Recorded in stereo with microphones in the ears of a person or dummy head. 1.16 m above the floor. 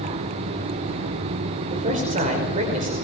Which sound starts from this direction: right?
A man speaking, at 1.7 s.